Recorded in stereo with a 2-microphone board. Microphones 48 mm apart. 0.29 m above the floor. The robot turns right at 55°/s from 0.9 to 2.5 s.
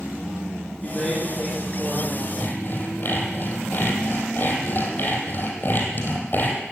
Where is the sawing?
35° left (ahead or behind), 3 m; by 6.6 s 40° left (ahead or behind), 3 m.